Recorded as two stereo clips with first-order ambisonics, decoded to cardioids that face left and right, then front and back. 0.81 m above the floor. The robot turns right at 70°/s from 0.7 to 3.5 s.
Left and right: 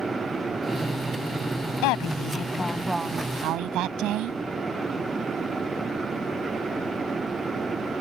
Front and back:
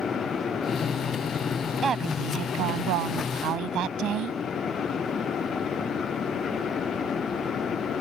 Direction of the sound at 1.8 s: 110° left.